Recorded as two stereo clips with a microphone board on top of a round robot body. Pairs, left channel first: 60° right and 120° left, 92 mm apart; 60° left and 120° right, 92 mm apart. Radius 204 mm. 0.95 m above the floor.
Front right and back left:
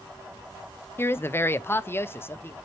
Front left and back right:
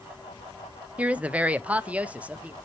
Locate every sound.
1.0 s a woman speaking: 65° right, 0.6 m